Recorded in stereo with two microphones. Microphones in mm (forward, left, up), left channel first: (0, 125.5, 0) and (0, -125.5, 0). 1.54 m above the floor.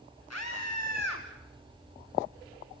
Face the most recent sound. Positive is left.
turn(degrees=80)